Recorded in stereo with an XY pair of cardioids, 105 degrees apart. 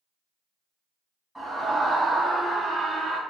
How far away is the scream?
About 1.4 m.